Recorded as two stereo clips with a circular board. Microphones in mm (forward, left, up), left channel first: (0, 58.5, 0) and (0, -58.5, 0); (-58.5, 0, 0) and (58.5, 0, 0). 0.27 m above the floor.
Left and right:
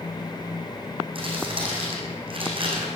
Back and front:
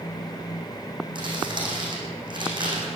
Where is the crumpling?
50° right, 4 m.